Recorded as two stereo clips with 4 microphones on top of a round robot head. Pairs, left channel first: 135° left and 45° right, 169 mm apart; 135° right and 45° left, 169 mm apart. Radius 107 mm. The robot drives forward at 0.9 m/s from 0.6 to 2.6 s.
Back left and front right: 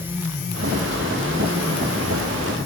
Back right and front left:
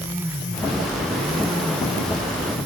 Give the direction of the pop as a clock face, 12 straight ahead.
No pop in this recording.